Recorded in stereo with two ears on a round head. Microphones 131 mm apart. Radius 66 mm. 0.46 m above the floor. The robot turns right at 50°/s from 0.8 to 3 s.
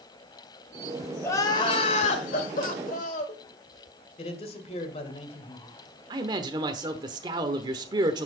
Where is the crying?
20° left, 1.6 m; by 3.4 s 110° left, 1.6 m.